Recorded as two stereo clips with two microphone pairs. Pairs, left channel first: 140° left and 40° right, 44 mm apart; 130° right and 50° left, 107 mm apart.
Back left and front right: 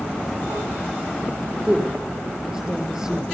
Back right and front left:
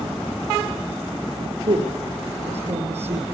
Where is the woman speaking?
40° left, 6.5 m.